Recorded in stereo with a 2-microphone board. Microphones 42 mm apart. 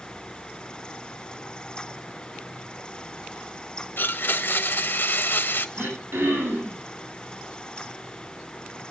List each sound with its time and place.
4.0 s a blender: 55° left (ahead or behind), 1.0 m
5.8 s throat clearing: 75° right (ahead or behind), 10 m